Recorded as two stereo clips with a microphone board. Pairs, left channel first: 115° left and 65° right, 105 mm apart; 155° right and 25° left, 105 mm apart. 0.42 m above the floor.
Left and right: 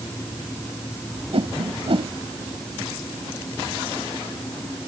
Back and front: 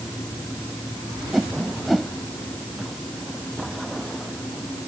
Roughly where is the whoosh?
Ahead right.